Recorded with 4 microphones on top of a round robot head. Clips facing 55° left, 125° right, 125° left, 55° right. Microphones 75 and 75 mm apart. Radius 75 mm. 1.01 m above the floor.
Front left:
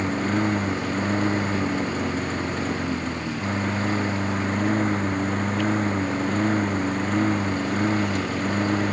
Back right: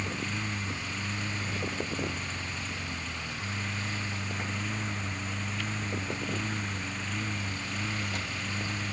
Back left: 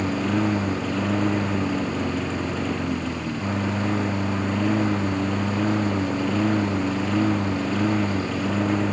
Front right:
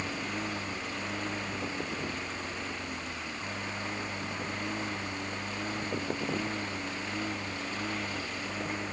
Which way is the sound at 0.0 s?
105° left.